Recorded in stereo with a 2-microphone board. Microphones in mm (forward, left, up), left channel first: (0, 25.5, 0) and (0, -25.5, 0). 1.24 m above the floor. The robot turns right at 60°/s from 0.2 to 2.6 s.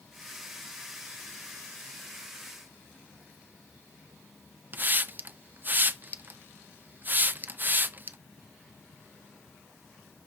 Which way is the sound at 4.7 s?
35° right (ahead or behind).